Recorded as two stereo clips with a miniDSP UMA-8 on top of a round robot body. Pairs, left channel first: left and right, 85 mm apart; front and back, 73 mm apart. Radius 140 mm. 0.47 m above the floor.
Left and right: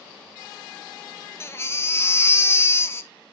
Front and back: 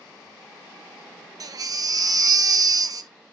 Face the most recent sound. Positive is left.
turn(degrees=150)